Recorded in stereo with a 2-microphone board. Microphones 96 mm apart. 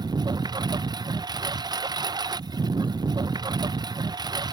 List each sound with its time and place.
0.0 s a lawn mower: 45° right (ahead or behind)